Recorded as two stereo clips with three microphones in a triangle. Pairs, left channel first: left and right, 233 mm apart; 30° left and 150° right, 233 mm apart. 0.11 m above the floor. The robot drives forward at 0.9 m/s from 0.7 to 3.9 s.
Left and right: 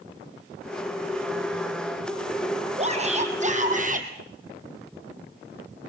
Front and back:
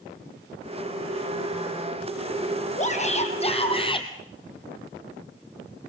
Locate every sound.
2.8 s a shout: 30° right, 4 m; by 4.1 s 35° right, 3.5 m